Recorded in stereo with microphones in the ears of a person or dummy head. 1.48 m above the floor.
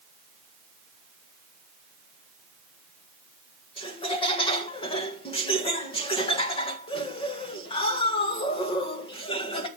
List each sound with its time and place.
3.8 s laughter: 30° left (ahead or behind), 2.0 m